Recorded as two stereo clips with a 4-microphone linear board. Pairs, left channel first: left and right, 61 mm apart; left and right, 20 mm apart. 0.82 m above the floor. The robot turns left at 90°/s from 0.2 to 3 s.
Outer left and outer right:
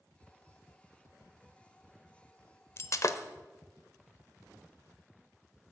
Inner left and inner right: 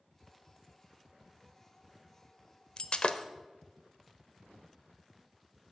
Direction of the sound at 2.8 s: 45° left (ahead or behind).